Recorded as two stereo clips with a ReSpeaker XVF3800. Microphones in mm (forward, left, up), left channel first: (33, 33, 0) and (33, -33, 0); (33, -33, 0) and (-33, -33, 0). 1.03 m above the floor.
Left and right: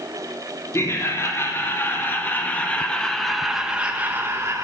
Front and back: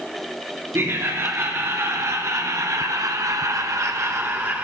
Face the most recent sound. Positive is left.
turn(degrees=-125)